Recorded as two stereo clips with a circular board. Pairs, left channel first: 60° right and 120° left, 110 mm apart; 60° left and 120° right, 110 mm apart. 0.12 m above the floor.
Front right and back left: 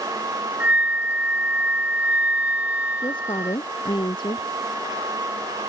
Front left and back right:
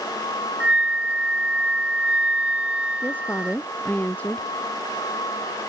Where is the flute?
175° left.